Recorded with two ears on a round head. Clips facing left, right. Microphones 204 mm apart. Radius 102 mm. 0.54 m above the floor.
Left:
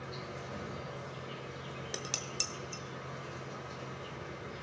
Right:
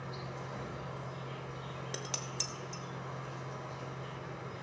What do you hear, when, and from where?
0.0 s an insect: 30° left (ahead or behind), 4.5 m
1.9 s dishes clattering: 10° left (ahead or behind), 0.7 m